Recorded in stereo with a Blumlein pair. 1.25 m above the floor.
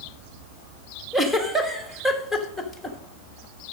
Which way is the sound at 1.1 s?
5° right.